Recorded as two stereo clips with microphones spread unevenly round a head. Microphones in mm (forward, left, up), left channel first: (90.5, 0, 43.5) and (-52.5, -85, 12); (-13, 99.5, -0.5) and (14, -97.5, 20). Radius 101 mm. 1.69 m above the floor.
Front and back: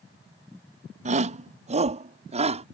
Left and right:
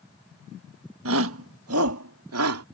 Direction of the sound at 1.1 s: 100° right.